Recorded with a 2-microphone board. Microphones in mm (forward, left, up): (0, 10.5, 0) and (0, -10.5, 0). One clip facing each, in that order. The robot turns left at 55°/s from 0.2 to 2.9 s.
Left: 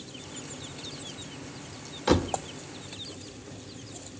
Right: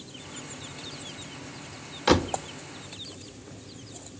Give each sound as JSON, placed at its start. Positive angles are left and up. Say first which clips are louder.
{"t": 2.1, "sound": "a door slam", "louder": "right 2 dB", "side_deg": -30, "distance_m": 0.6}